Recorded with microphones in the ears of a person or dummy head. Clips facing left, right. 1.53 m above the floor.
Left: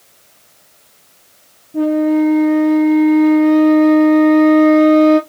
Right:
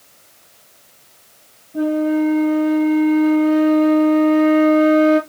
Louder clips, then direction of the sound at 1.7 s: Left 4 dB; 15° left (ahead or behind).